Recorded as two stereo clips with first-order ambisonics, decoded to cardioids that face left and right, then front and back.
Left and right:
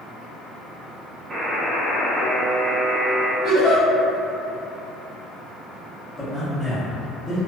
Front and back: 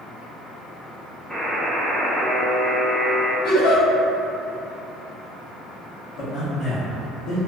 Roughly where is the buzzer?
Right.